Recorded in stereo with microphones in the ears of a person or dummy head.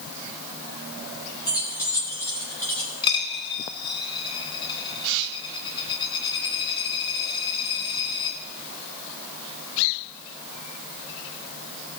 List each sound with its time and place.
1.4 s keys jangling: 25° left (ahead or behind), 3.5 m; by 2.9 s 15° left (ahead or behind), 4.5 m
3.0 s a dropped coin: 30° left (ahead or behind), 1.5 m